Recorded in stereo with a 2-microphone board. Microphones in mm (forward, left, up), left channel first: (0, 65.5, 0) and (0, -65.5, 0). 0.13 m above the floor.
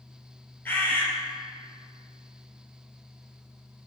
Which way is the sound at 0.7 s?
15° left (ahead or behind).